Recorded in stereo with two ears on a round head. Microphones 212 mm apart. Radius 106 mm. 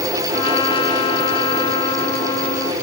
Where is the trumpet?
20° left (ahead or behind).